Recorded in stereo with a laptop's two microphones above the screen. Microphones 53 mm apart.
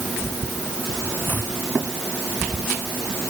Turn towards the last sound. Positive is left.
turn(degrees=35)  # may be behind; listen again after turning